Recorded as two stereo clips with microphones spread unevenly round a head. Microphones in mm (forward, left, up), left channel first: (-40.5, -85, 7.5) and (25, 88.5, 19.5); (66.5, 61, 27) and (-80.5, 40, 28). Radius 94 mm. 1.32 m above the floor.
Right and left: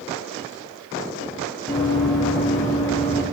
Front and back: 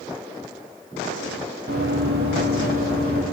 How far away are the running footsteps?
About 4 m.